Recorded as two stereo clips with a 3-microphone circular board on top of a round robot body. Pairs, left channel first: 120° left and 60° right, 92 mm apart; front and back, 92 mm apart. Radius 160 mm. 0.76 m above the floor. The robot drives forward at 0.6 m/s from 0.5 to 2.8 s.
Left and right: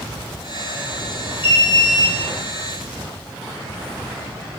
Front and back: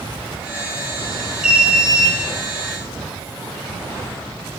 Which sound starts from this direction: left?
An alarm, at 1.4 s.